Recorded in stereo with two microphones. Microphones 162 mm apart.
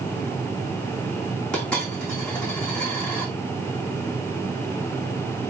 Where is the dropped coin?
5° left (ahead or behind), 5.5 m.